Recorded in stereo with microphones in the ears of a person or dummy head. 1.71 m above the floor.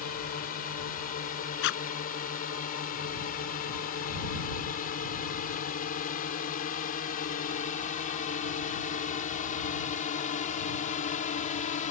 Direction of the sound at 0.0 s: 45° left (ahead or behind).